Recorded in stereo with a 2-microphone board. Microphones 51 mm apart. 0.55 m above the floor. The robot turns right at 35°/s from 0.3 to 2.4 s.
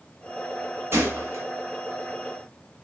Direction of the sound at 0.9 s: 55° right (ahead or behind).